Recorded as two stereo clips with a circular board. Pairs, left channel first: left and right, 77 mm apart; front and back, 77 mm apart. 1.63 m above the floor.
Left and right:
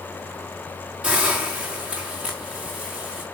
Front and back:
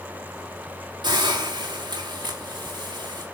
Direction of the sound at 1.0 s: 165° right.